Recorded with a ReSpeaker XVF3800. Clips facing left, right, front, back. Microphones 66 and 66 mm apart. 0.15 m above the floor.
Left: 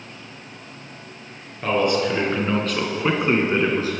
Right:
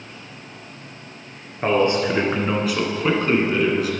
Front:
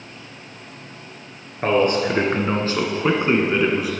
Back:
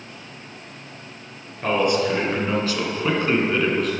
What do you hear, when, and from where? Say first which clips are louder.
1.6 s a man speaking: right 2 dB, front 2 dB; 40° right, 2.0 m; by 3.9 s 80° left, 1.5 m